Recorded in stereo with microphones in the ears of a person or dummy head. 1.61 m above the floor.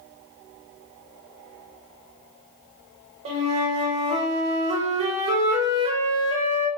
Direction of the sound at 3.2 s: 35° right (ahead or behind).